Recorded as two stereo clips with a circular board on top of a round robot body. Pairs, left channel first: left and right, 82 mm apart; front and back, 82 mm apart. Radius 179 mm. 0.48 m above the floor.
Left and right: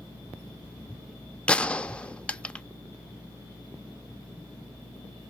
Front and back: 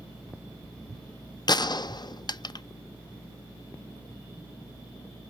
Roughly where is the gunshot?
Ahead.